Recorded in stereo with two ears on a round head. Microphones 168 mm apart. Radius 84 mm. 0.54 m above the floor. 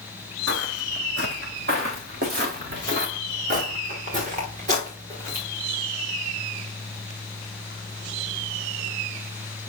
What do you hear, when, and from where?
0.5 s footsteps: 70° right (ahead or behind), 1.6 m; by 5.4 s 40° right (ahead or behind), 5.5 m